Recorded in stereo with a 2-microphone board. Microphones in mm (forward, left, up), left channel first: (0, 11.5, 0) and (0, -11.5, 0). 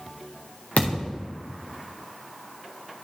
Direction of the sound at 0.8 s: 85° left.